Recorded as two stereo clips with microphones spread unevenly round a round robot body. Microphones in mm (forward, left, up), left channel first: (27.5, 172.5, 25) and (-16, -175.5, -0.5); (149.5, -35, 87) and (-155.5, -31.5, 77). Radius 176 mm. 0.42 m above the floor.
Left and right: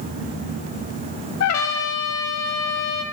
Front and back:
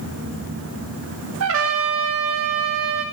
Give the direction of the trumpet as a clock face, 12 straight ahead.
8 o'clock.